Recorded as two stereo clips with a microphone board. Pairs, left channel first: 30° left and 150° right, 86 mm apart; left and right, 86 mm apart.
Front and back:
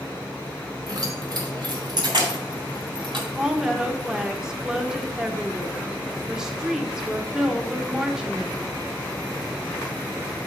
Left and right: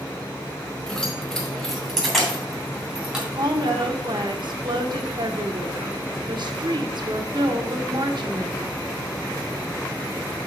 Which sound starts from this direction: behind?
Keys jangling, at 0.9 s.